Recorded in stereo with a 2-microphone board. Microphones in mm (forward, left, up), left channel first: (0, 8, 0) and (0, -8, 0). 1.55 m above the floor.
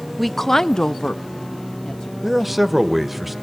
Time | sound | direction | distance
0.2 | a woman speaking | centre (ahead or behind) | 0.7 m
2.2 | a man speaking | 10° right (ahead or behind) | 1.0 m